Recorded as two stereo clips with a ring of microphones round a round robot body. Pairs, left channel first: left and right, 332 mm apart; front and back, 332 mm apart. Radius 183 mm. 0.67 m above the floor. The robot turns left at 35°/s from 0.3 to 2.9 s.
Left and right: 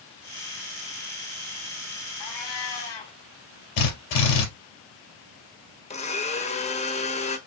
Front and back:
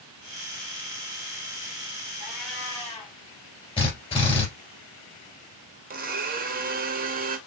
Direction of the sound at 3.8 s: 75° left.